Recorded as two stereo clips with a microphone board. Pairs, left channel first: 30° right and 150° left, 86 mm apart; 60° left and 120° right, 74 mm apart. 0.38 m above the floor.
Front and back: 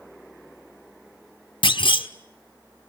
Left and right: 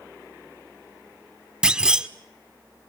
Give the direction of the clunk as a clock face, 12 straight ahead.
1 o'clock.